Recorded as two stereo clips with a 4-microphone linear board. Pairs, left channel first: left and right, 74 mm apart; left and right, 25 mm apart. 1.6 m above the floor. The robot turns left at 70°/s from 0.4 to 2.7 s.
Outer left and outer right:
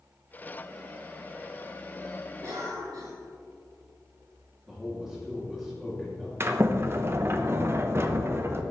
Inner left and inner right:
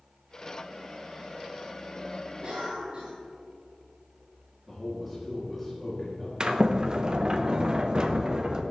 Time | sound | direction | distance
2.4 | a cough | 50° right (ahead or behind) | 3.5 m
4.7 | a man speaking | 5° right (ahead or behind) | 2.5 m
6.4 | a sliding door | 35° right (ahead or behind) | 0.8 m